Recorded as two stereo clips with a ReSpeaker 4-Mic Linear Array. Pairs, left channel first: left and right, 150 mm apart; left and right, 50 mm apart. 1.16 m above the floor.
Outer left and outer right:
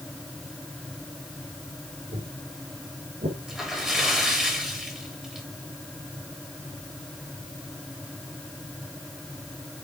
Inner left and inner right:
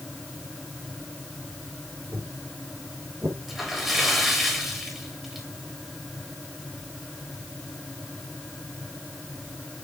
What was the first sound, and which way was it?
Footsteps, 65° right (ahead or behind).